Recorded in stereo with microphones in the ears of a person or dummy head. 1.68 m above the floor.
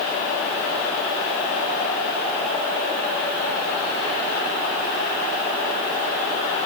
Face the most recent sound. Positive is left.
No sound to turn to.